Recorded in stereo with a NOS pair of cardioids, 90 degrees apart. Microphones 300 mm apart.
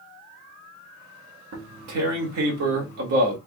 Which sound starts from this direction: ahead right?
Tearing paper, at 1.5 s.